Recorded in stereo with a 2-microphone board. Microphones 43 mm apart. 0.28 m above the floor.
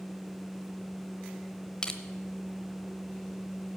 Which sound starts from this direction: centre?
Crushing, at 1.8 s.